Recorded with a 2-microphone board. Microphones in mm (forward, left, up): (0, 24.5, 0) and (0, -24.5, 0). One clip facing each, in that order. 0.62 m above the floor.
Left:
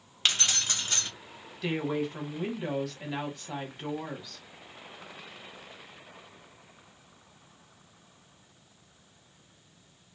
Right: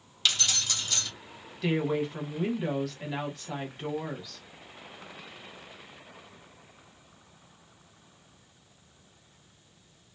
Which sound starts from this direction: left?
Keys jangling, at 0.2 s.